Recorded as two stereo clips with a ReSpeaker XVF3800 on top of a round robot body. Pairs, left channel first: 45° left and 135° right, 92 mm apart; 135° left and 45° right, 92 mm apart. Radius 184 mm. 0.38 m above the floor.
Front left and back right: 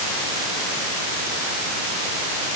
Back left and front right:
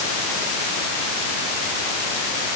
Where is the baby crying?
No baby crying in this recording.